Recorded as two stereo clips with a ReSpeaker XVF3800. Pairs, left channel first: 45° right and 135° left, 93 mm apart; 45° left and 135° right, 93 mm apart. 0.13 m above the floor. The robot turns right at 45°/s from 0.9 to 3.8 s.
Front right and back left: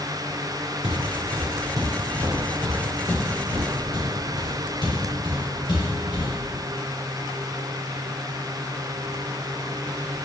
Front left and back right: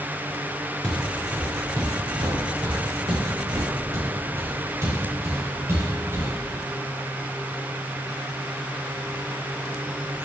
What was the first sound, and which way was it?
Footsteps, 130° left.